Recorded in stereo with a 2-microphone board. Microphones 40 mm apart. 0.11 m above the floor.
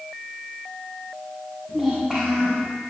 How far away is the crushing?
I don't hear crushing.